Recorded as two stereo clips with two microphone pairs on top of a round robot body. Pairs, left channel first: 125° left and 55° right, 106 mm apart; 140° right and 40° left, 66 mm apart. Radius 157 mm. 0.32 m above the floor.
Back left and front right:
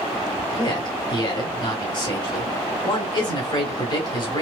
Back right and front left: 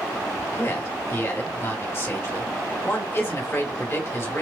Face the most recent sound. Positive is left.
turn(degrees=170)